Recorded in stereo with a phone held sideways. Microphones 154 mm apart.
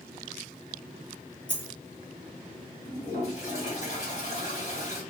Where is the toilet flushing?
45° left (ahead or behind), 1.9 m.